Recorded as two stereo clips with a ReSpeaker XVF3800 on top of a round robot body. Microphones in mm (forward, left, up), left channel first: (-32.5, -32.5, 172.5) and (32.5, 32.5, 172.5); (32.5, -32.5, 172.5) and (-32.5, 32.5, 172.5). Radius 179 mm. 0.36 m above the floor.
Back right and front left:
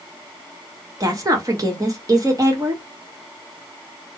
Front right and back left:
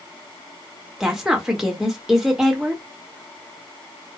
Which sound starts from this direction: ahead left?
A woman speaking, at 1.0 s.